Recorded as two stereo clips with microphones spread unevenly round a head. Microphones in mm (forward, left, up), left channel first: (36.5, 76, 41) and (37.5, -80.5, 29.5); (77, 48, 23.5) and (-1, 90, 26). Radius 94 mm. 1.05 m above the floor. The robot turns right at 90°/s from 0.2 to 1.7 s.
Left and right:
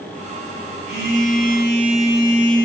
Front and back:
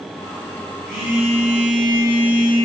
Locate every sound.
0.9 s a phone buzzing: 80° right, 3 m; by 2.6 s 5° right, 3 m